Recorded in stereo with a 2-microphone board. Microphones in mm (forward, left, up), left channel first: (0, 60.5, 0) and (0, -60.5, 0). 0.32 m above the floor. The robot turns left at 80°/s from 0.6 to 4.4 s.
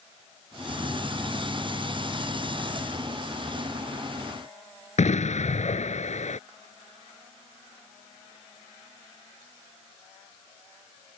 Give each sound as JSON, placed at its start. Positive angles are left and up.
{"t": 5.0, "sound": "an explosion", "side_deg": 75}